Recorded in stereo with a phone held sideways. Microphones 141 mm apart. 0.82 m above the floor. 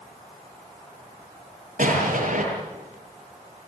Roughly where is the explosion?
Right.